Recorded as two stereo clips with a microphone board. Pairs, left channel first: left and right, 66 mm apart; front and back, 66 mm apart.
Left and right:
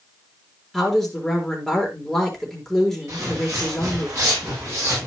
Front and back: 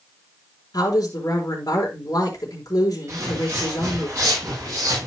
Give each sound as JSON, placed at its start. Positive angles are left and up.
{"t": 0.7, "sound": "a woman speaking", "azimuth_deg": 5, "distance_m": 4.0}
{"t": 3.1, "sound": "footsteps", "azimuth_deg": -135, "distance_m": 6.0}